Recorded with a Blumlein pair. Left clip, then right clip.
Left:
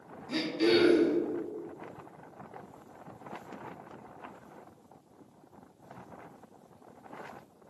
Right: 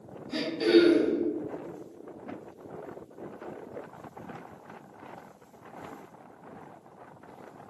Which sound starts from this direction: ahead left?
Throat clearing, at 0.3 s.